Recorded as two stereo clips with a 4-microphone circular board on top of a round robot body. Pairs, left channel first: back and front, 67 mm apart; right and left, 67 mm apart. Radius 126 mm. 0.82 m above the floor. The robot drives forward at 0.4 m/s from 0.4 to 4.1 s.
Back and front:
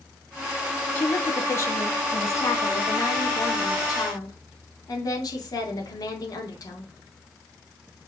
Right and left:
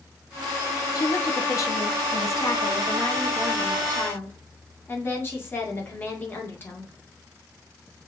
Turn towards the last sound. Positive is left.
turn(degrees=-150)